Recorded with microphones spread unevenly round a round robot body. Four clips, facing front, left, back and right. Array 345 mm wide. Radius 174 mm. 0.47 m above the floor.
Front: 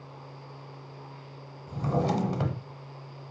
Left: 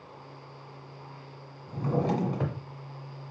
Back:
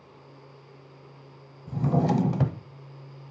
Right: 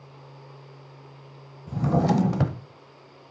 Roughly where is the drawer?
Behind right.